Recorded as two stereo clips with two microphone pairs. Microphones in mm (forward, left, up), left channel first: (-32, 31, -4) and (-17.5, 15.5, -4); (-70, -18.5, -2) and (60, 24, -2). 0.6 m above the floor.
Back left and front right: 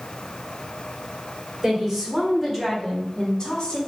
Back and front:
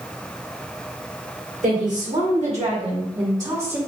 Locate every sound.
1.6 s a woman speaking: 15° left, 2 m; by 3.8 s 90° left, 1.5 m